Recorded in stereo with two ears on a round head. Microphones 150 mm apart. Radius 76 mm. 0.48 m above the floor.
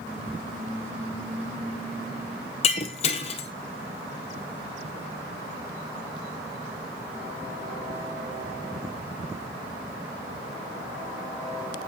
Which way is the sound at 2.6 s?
40° left (ahead or behind).